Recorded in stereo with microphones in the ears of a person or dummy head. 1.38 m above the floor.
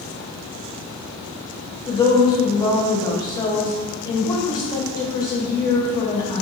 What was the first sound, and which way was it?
A woman speaking, 20° left (ahead or behind).